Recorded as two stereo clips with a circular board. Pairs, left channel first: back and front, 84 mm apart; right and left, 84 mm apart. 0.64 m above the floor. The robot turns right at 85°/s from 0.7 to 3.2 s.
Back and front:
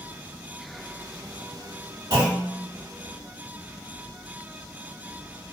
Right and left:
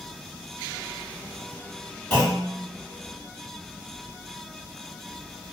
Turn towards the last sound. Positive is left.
turn(degrees=75)